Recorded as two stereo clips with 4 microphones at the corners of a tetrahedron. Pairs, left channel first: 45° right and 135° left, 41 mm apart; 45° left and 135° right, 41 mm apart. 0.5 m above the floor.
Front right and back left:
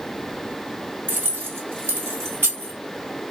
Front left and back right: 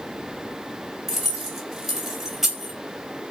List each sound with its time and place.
1.1 s keys jangling: 145° left, 1.3 m